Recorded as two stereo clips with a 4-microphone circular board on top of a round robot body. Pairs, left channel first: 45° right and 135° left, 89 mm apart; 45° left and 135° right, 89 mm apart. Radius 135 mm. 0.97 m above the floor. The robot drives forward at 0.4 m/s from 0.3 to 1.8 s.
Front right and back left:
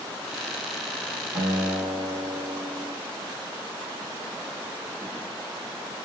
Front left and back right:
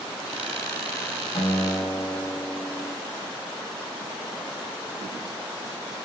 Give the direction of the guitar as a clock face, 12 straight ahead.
9 o'clock.